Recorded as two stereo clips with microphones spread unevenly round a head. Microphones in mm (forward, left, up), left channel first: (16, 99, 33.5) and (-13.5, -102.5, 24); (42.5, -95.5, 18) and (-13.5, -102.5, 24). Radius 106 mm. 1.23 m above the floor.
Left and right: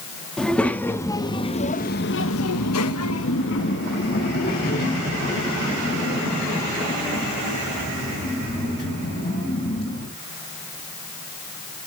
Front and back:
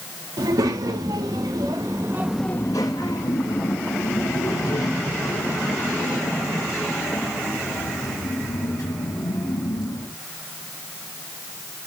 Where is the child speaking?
170° left, 1.7 m; by 10.1 s 25° left, 6 m.